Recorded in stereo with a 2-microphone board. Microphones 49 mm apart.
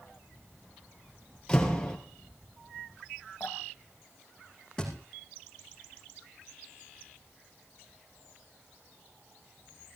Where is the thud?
15° left (ahead or behind), 5.5 m.